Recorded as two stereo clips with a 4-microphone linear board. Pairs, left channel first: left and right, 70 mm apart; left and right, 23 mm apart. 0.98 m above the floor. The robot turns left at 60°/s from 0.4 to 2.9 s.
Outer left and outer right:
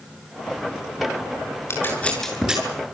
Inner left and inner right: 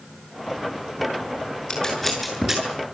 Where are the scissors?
40° left (ahead or behind), 8 m; by 2.6 s 15° right (ahead or behind), 8 m.